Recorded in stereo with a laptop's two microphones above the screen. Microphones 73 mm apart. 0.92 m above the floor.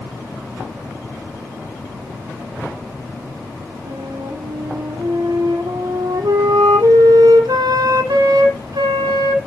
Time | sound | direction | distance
3.9 | a flute | 70° right (ahead or behind) | 2.5 m